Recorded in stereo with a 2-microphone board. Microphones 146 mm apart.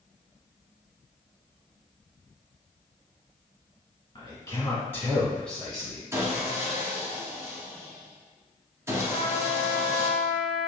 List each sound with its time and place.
4.2 s a man speaking: 30° left (ahead or behind), 1.7 m; by 6.0 s 5° right (ahead or behind), 1.5 m
6.1 s sawing: 20° right (ahead or behind), 0.9 m
9.1 s a trumpet: 20° right (ahead or behind), 1.5 m